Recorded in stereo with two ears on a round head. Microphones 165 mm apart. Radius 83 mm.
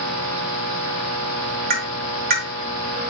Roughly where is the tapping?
Right.